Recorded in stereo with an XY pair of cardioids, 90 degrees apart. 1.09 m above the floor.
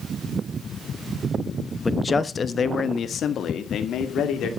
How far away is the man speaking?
About 1.0 m.